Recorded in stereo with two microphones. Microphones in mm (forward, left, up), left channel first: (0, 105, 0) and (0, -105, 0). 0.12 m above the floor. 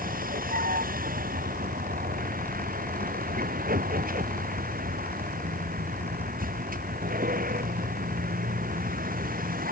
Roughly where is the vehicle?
Right.